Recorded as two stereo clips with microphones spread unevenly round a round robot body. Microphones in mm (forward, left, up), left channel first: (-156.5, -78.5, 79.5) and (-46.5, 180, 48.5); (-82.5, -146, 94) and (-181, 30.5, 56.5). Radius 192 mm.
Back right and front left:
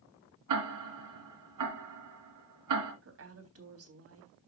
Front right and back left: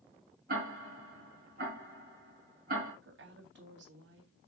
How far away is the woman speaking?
About 3.5 m.